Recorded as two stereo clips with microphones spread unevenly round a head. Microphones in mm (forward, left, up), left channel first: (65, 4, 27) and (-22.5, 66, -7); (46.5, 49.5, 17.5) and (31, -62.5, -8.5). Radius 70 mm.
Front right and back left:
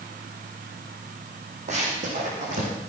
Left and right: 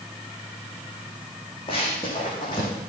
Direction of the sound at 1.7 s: 125° left.